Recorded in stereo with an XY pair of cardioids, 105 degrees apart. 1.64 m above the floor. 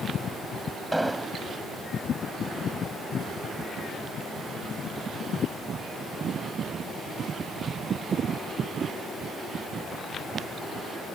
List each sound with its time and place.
0.9 s an explosion: 10° right